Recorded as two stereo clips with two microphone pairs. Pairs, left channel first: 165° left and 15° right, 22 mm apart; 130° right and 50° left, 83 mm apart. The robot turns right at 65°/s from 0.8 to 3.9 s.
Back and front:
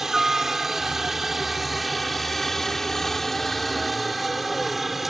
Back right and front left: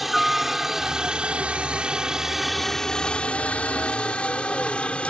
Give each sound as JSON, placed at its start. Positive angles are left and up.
{"t": 0.0, "sound": "a helicopter", "azimuth_deg": -35}